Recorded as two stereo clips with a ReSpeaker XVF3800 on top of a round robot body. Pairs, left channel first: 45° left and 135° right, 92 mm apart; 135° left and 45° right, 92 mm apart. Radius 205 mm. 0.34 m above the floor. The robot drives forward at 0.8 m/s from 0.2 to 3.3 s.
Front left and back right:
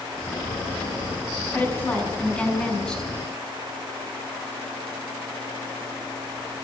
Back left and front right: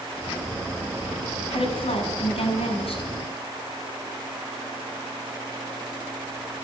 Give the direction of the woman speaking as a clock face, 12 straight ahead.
8 o'clock.